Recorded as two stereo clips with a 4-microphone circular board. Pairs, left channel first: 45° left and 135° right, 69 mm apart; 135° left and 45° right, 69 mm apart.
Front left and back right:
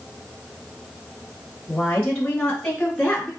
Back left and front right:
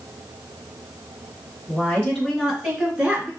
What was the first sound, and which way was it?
A woman speaking, 105° left.